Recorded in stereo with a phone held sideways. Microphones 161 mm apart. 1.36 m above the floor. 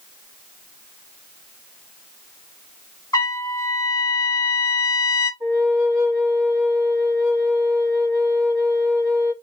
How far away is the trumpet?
About 1.1 m.